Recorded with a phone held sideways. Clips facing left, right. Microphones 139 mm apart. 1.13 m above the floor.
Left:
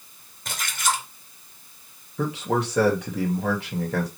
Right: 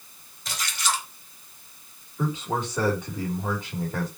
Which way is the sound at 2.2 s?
75° left (ahead or behind).